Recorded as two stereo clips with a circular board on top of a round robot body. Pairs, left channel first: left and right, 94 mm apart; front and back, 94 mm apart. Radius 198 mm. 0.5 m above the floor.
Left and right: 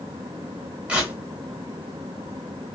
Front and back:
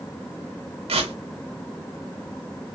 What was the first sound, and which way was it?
Tearing paper, 170° right.